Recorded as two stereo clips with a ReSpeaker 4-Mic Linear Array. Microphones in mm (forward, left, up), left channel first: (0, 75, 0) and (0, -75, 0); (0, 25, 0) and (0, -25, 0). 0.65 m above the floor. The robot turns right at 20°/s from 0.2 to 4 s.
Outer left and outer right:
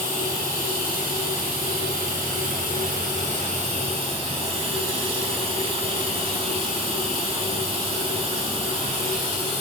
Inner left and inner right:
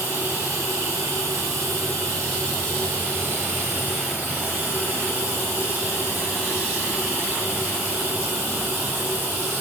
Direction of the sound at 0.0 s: 120° right.